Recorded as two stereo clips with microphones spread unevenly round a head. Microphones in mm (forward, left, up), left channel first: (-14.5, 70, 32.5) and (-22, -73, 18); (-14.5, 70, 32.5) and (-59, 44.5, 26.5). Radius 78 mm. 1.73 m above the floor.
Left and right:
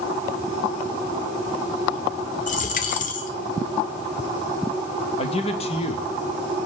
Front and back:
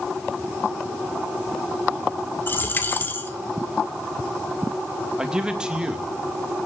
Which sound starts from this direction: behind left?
A man speaking, at 5.2 s.